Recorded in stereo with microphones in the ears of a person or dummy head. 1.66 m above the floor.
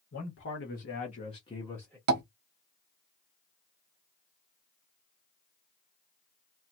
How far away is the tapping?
About 1.0 m.